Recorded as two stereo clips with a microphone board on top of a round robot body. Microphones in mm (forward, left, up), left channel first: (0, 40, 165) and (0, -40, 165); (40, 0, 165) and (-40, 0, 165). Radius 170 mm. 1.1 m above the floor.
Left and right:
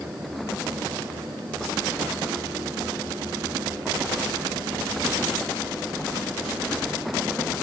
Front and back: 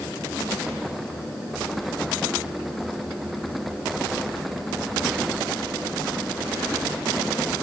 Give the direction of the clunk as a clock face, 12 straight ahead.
No clunk in this recording.